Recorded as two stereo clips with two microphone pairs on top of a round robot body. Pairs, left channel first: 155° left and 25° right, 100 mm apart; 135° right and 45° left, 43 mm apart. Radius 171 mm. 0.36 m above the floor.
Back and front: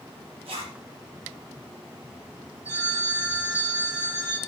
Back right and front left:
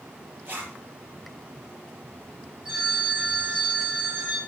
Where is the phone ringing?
15° right, 7 m.